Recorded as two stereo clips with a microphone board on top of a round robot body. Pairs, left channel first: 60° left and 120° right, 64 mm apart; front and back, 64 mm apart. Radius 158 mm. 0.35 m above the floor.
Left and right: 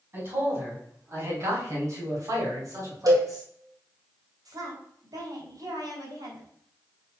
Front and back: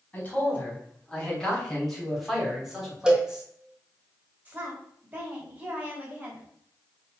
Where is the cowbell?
100° right, 1.7 m.